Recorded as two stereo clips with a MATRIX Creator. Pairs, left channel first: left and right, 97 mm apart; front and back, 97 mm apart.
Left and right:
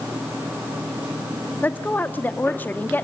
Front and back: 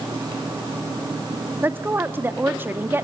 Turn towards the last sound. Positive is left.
turn(degrees=140)